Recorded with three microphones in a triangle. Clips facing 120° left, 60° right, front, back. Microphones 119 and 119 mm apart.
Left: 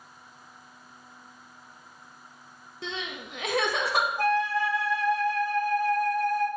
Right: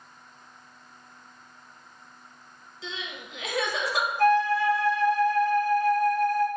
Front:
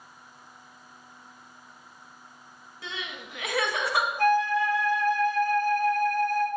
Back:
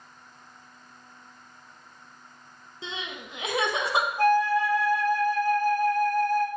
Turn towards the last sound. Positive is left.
turn(degrees=145)